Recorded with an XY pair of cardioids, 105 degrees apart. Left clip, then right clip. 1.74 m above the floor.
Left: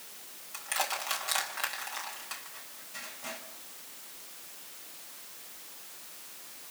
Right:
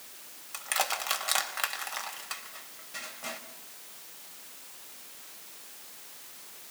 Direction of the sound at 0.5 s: 35° right.